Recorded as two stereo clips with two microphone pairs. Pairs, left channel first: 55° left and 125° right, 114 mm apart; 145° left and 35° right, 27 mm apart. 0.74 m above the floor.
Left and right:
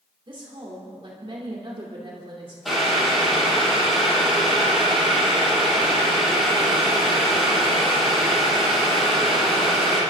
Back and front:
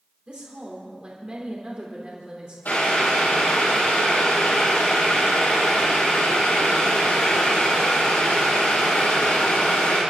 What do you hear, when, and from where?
0.3 s a woman speaking: 85° right, 2.5 m
2.6 s boiling: 150° left, 5.5 m